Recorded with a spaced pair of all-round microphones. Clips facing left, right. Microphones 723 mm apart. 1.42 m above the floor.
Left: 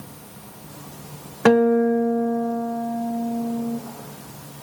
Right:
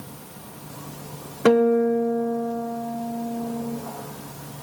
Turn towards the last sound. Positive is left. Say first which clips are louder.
# left 1 dB
turn(degrees=30)  # may be behind; listen again after turning